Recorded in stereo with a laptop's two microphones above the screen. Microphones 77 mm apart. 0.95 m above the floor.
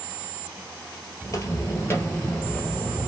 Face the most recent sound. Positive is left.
turn(degrees=5)  # may be behind; listen again after turning